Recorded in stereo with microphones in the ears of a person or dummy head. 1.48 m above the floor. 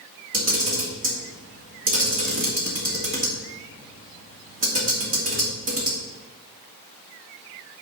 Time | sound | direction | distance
0.3 | a camera shutter | 35° right (ahead or behind) | 2.5 m